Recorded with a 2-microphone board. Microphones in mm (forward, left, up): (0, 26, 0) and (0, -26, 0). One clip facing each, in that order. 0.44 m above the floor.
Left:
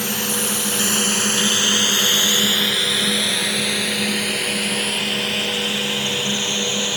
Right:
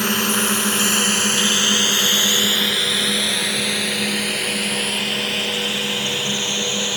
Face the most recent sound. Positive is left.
turn(degrees=15)  # may be behind; listen again after turning